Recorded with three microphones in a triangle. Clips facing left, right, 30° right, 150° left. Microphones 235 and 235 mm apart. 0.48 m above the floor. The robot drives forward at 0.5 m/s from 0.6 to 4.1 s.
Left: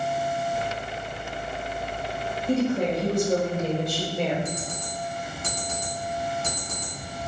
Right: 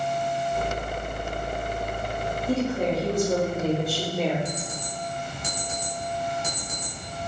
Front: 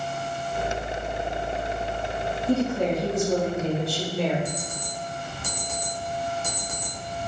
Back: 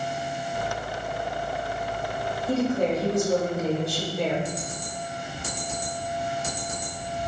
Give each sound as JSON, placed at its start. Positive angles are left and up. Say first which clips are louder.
{"t": 2.5, "sound": "a woman speaking", "louder": "left 2 dB, even", "azimuth_deg": -175, "distance_m": 1.9}
{"t": 4.5, "sound": "an alarm clock", "louder": "even, even", "azimuth_deg": -165, "distance_m": 1.9}